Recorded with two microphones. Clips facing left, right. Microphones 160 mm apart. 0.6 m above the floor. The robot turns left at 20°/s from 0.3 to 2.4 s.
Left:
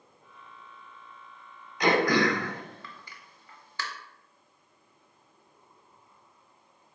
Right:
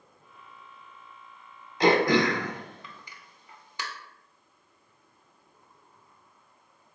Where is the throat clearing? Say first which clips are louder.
Right 2 dB; 30° right (ahead or behind), 0.5 m; by 3.8 s 15° right (ahead or behind), 0.5 m.